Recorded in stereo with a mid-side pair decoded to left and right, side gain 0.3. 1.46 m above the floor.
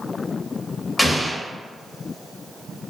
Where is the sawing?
No sawing in this recording.